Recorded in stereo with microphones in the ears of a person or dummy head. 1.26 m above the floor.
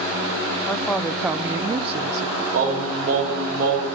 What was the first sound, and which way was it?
A woman speaking, 10° left (ahead or behind).